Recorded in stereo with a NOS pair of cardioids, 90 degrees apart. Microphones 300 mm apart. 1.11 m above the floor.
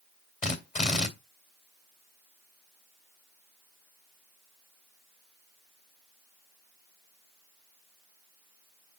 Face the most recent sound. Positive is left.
turn(degrees=25)